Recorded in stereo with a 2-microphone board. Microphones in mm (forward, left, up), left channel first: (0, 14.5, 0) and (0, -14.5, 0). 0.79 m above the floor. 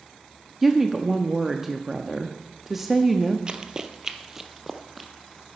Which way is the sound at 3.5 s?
25° right (ahead or behind).